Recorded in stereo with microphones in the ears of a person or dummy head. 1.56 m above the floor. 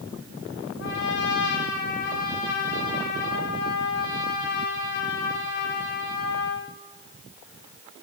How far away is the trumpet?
About 1.6 m.